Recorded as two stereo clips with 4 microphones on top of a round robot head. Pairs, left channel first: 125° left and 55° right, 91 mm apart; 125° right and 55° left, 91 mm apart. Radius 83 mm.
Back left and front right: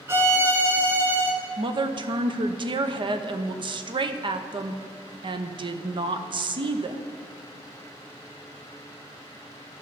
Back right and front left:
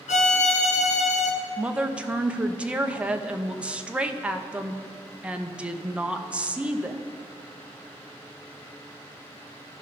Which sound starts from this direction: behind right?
A violin, at 0.1 s.